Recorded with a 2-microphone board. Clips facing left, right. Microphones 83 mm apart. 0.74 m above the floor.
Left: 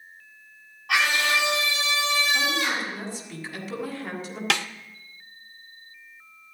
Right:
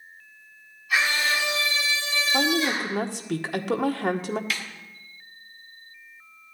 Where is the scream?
70° left (ahead or behind), 6.5 m; by 2.9 s 65° left (ahead or behind), 7.5 m.